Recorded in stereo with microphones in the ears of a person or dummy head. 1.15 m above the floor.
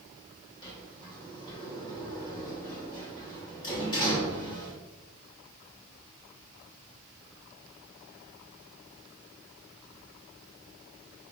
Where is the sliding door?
25° left (ahead or behind), 2.0 m.